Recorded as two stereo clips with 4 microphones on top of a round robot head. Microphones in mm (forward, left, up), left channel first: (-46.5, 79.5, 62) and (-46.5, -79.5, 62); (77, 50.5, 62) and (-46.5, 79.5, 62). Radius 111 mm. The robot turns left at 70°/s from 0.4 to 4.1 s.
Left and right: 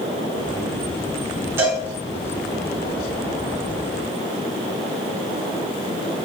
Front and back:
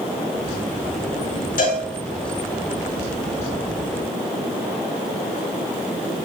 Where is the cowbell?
10° right, 4.5 m; by 1.8 s 30° right, 4.5 m.